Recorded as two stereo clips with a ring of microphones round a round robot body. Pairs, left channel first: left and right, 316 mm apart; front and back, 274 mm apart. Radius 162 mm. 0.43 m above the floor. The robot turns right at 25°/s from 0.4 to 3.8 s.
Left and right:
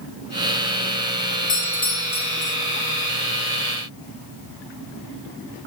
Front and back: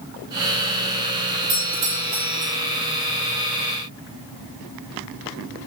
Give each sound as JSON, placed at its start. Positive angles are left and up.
{"t": 1.5, "sound": "a doorbell", "azimuth_deg": 155, "distance_m": 6.5}